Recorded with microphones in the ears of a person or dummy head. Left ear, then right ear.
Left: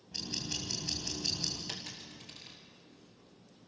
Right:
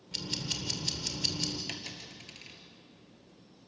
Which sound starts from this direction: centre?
A dropped coin, at 1.7 s.